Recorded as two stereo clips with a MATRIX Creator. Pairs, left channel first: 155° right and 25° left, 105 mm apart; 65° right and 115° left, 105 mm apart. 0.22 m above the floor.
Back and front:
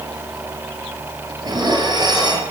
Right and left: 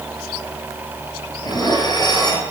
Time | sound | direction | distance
1.4 | dishes clattering | 25° right | 2.5 m